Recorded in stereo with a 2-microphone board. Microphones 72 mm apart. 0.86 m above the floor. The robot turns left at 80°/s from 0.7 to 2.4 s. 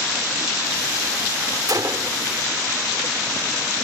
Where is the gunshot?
105° right; by 2.2 s 145° right.